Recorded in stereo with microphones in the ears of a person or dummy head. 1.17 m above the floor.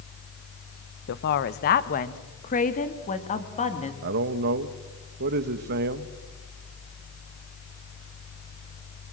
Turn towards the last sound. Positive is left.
turn(degrees=-50)  # may be behind; listen again after turning